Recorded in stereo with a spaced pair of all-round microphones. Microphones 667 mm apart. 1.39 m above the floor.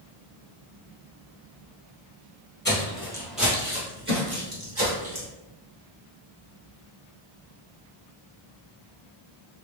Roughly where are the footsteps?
Centre.